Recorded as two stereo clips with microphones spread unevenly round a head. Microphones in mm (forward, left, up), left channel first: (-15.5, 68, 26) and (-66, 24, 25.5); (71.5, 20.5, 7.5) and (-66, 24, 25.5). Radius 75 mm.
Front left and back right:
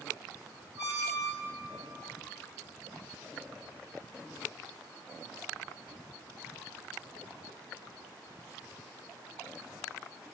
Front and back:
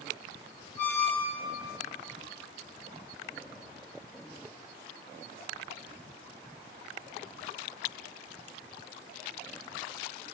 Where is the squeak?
80° right, 1.5 m.